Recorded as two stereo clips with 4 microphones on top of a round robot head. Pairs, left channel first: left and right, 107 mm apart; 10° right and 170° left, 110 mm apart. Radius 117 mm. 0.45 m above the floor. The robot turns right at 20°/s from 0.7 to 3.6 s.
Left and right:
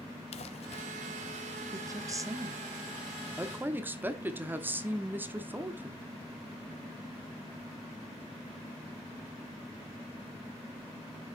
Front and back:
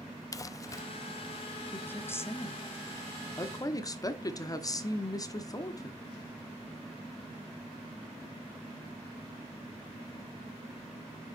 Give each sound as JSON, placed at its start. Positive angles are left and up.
{"t": 0.3, "sound": "crumpling", "azimuth_deg": 50, "distance_m": 0.5}
{"t": 1.7, "sound": "a woman speaking", "azimuth_deg": -70, "distance_m": 1.2}